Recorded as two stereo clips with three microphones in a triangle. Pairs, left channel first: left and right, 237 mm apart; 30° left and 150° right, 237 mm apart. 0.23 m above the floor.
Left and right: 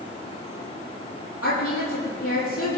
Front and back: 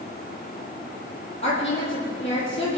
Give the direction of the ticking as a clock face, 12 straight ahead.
No ticking in this recording.